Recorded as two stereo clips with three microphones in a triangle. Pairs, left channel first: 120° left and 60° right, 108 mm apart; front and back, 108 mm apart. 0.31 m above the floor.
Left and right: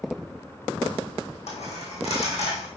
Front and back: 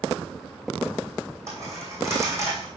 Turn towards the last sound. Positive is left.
turn(degrees=115)